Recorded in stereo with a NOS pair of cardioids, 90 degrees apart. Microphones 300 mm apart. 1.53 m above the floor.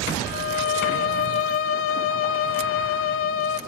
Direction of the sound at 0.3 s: 55° left.